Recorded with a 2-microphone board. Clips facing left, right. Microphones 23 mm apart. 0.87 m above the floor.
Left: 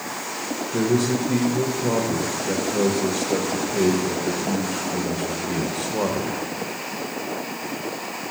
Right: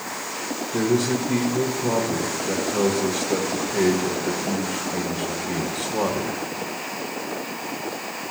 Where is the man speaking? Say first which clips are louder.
Even; centre (ahead or behind), 0.9 m.